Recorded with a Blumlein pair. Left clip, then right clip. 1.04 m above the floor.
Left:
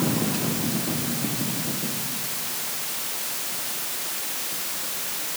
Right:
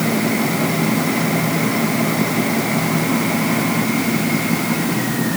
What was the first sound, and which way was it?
Only background noise.